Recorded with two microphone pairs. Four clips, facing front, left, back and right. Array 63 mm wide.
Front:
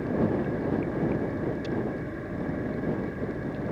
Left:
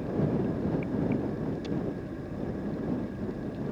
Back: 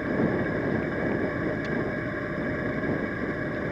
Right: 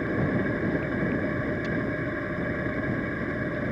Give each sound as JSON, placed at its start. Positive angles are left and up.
{"t": 0.0, "sound": "an engine running", "azimuth_deg": -130}